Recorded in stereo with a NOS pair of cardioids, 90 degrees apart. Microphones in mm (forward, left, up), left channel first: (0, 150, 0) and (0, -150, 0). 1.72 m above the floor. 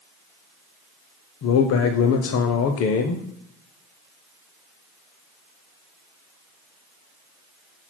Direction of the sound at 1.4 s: 50° left.